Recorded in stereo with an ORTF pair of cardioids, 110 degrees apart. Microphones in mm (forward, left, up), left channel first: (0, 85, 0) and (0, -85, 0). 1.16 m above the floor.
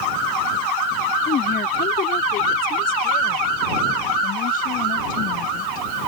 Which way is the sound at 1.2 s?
65° left.